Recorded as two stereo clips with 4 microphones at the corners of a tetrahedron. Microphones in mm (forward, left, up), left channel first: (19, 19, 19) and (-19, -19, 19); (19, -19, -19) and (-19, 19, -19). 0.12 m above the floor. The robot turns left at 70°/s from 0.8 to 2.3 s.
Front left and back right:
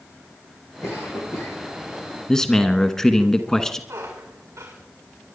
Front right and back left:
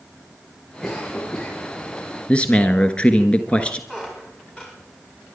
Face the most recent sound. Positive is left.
turn(degrees=-115)